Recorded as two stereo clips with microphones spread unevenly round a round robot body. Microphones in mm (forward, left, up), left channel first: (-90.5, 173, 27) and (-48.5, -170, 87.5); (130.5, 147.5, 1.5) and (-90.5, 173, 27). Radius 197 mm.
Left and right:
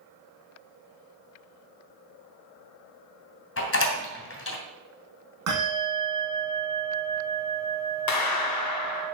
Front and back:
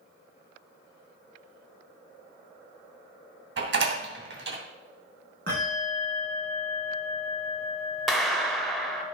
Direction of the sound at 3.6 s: 145° left.